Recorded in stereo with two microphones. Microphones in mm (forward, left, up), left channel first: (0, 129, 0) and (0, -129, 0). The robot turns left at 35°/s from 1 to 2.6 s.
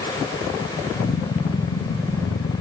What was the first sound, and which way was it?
Only background noise.